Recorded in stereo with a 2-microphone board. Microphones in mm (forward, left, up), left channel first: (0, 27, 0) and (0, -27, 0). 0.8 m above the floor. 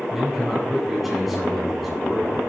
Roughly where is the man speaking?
Centre.